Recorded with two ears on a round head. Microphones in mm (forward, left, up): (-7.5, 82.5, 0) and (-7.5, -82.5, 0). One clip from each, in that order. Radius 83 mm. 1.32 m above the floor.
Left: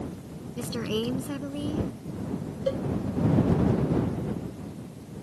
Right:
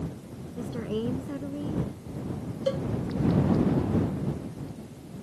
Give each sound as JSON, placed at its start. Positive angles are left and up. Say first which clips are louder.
{"t": 0.6, "sound": "a woman speaking", "louder": "left 2 dB", "side_deg": 80}
{"t": 2.7, "sound": "a cowbell", "louder": "even", "side_deg": -20}